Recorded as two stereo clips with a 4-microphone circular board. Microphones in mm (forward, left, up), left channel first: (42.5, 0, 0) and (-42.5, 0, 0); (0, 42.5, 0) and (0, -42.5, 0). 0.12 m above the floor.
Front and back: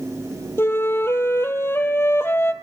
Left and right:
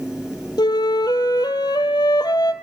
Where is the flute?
60° left, 0.8 m.